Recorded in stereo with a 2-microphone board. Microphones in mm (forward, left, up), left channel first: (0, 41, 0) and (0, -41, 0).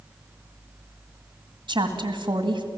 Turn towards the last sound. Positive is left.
turn(degrees=-75)  # may be behind; listen again after turning